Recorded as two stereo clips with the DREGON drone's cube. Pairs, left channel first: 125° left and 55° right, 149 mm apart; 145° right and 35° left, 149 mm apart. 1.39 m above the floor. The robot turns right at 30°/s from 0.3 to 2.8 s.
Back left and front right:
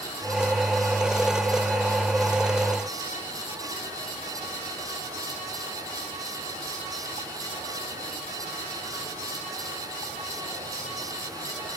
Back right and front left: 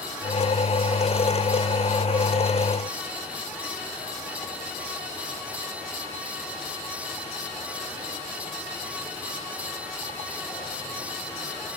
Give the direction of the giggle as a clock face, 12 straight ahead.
No giggle in this recording.